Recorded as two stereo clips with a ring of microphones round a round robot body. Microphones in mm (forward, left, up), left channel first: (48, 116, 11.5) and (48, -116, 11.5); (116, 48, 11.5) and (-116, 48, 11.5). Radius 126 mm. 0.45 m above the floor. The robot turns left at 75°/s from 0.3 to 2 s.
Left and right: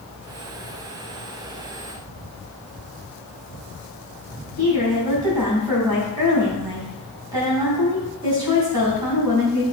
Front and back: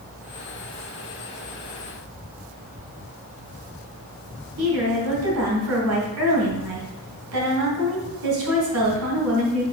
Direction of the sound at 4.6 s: 165° right.